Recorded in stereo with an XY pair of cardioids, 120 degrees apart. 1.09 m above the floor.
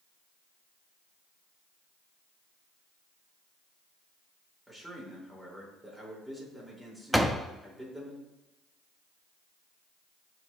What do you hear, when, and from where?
4.7 s a man speaking: straight ahead, 4.5 m
7.1 s a door slam: straight ahead, 0.8 m